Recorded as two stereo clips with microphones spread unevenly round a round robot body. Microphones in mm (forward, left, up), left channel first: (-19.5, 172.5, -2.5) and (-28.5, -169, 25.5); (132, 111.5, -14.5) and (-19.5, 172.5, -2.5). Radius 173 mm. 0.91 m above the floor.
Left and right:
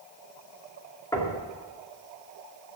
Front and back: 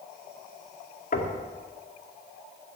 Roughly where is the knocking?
Ahead.